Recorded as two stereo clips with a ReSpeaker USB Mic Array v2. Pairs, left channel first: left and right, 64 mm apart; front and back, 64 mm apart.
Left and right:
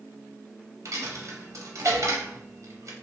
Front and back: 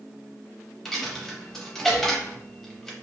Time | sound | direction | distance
0.8 | a dropped coin | 85° right | 0.6 m